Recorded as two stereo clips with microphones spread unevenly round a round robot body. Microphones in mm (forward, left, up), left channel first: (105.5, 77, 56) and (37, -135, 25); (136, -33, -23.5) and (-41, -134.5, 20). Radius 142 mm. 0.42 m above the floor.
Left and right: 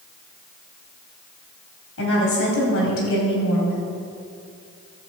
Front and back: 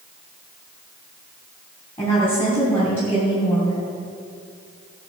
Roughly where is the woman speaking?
Left.